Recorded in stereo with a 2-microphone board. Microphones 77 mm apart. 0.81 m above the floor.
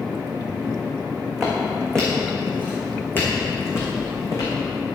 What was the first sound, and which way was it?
Footsteps, centre (ahead or behind).